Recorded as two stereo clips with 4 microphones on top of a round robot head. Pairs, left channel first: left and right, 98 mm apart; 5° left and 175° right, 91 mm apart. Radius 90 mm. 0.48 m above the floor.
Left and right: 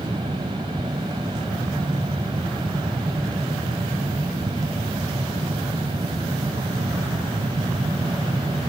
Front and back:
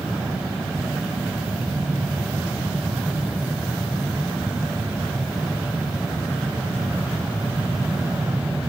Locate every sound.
Only background noise.